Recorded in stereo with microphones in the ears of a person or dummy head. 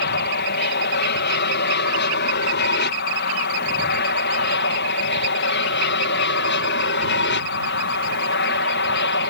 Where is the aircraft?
50° left (ahead or behind); by 9.3 s 55° left (ahead or behind).